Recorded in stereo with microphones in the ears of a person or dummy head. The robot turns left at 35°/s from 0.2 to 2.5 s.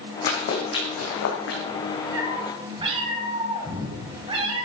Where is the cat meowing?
15° right (ahead or behind), 3 m; by 4.7 s 25° right (ahead or behind), 3 m.